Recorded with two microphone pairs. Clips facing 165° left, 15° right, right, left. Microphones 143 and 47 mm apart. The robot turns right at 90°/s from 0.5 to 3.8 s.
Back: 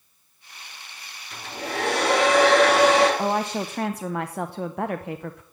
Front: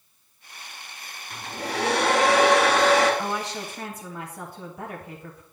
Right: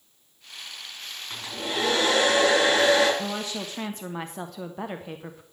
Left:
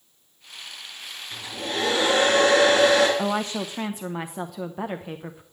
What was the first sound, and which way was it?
A hair dryer, 45° right.